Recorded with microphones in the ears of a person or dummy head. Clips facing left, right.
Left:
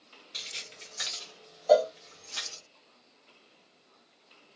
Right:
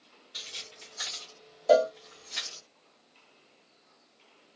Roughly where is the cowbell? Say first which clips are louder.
Even; right.